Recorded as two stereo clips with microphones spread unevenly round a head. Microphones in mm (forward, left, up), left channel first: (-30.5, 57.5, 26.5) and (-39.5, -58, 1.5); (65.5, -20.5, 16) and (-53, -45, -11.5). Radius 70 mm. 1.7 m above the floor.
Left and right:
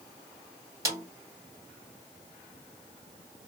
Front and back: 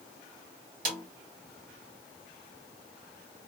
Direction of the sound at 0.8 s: 160° right.